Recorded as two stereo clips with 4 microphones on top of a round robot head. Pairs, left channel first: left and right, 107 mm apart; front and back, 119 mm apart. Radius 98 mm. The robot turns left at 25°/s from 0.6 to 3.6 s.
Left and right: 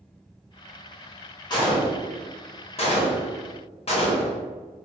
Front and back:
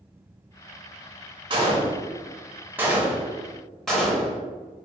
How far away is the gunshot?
About 1.0 m.